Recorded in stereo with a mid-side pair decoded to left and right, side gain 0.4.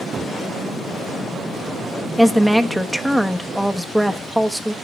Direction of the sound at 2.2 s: Straight ahead.